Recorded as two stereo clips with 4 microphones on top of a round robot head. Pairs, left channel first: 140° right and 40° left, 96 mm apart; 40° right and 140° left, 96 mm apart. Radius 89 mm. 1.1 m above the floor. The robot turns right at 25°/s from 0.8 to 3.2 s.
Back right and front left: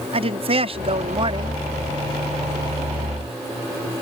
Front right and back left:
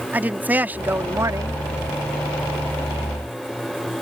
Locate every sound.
0.1 s a woman speaking: 65° left; by 1.6 s 90° left